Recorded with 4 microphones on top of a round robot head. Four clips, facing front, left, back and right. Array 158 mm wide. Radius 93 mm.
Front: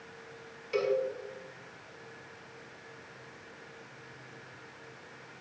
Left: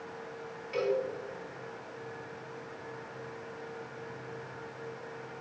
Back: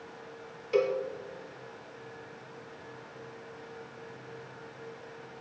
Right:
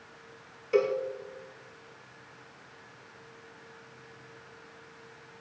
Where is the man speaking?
I don't hear a man speaking.